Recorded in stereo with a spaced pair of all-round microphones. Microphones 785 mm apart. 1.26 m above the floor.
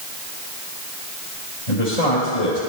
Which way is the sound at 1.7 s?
60° left (ahead or behind).